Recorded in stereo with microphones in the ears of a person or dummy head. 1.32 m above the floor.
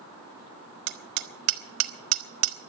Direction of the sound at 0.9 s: 60° right (ahead or behind).